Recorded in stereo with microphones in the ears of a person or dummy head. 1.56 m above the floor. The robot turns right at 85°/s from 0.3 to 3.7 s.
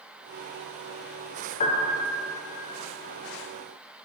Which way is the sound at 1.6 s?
35° left.